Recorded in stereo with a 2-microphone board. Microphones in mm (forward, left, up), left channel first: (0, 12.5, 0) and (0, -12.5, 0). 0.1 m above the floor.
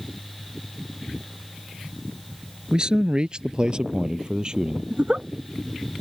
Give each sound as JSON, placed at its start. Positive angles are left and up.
{"t": 2.7, "sound": "a man speaking", "side_deg": -35}
{"t": 4.9, "sound": "a giggle", "side_deg": -50}